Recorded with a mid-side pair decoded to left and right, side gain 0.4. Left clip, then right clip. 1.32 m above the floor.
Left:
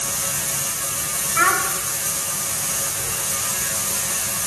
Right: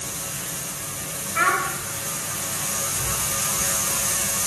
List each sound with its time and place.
1.4 s a child speaking: 20° left, 3.5 m